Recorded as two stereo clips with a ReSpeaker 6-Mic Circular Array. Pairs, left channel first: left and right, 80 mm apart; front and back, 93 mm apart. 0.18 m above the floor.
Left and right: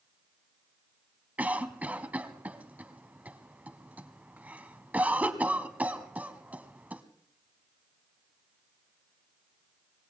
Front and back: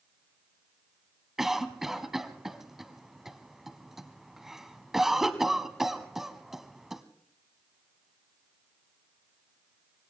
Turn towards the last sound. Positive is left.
turn(degrees=-100)